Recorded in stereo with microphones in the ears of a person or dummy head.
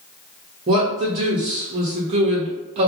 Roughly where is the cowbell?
No cowbell in this recording.